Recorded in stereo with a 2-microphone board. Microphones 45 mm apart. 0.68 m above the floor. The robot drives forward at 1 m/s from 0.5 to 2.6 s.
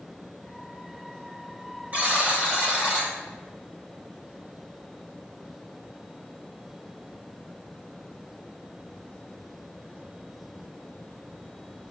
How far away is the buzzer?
About 1.8 m.